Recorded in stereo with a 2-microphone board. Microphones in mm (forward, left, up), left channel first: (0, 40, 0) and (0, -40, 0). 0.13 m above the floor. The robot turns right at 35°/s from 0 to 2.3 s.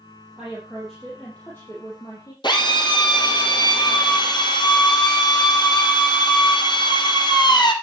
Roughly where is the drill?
Left.